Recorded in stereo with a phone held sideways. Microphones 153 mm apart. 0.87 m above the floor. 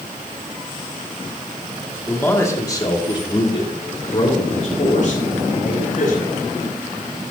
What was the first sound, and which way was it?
A man speaking, 10° left (ahead or behind).